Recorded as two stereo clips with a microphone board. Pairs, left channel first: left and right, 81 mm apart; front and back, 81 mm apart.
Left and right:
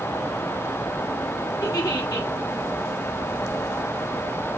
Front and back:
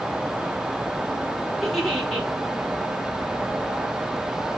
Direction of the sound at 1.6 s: 90° left.